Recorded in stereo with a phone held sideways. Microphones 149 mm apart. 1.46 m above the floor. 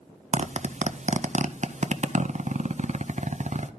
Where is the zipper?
55° right (ahead or behind), 0.6 m.